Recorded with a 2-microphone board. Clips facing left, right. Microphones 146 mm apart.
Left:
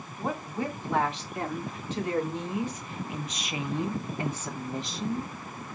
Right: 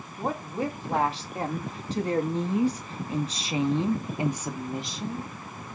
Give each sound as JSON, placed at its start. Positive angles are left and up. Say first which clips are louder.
{"t": 0.2, "sound": "a woman speaking", "louder": "right 2 dB", "side_deg": -30, "distance_m": 2.5}